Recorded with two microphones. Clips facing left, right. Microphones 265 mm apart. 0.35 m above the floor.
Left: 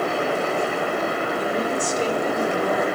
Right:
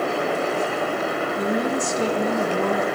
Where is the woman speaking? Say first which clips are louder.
Right 3 dB; 65° right (ahead or behind), 2 m.